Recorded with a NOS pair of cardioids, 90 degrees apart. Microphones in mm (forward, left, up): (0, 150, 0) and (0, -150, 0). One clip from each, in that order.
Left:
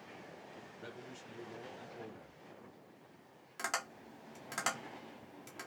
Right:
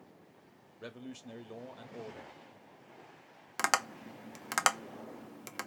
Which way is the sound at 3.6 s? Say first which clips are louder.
Right 8 dB; 65° right.